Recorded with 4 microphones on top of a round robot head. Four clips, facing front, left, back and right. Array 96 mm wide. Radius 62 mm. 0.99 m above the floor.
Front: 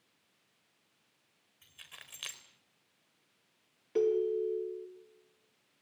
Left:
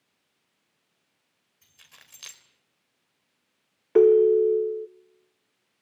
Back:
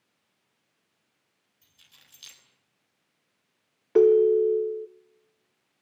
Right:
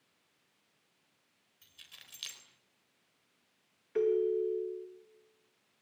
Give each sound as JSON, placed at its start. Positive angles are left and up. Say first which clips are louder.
{"t": 1.6, "sound": "keys jangling", "louder": "left 3 dB, front 8 dB", "azimuth_deg": 30, "distance_m": 3.5}
{"t": 4.0, "sound": "a ringtone", "louder": "left 13 dB, back 12 dB", "azimuth_deg": 120, "distance_m": 0.7}